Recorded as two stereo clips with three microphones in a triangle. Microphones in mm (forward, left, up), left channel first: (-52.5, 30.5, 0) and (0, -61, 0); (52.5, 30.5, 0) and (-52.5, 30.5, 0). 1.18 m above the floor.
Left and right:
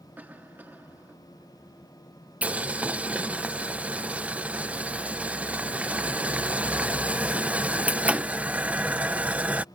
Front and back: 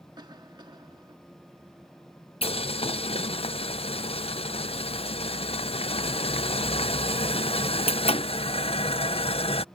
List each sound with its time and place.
0.2 s a cough: 135° right
2.4 s boiling: 15° left